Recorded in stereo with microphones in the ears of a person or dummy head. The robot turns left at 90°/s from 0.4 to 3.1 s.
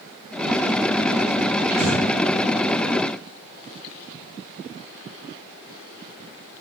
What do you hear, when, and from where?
1.7 s breathing: 35° right (ahead or behind), 0.7 m; by 2.0 s 10° right (ahead or behind), 0.7 m